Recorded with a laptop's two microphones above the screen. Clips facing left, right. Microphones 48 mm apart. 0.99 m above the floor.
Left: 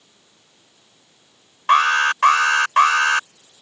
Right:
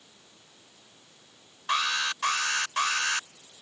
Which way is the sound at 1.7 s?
50° left (ahead or behind).